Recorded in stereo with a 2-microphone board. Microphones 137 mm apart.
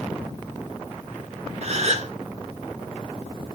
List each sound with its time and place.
1.6 s a gasp: 50° right (ahead or behind), 0.6 m